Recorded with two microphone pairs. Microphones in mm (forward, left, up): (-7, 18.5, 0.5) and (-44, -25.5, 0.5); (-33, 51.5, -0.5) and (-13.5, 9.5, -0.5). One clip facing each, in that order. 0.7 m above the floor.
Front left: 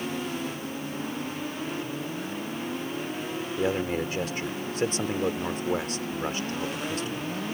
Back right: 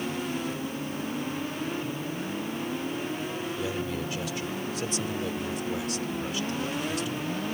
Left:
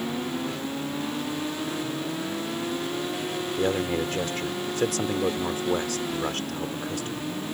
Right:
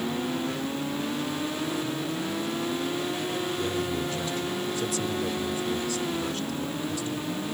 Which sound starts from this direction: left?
A man speaking, at 3.6 s.